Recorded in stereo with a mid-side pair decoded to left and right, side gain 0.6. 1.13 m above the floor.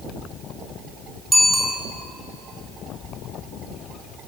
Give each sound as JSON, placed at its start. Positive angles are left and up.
{"t": 1.3, "sound": "a bicycle bell", "azimuth_deg": -15, "distance_m": 8.0}